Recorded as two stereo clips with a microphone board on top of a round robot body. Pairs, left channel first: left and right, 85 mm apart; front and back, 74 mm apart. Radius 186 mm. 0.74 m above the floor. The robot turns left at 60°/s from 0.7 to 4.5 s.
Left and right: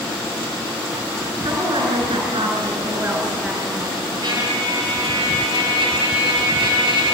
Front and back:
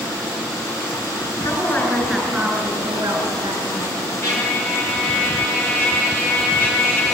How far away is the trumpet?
About 6 m.